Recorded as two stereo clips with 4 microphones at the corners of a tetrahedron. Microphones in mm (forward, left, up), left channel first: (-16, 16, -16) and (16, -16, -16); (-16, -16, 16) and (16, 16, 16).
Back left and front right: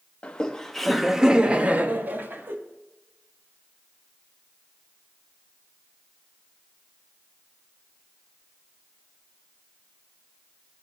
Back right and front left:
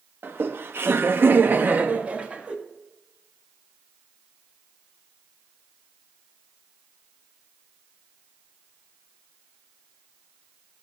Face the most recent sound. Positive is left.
turn(degrees=-15)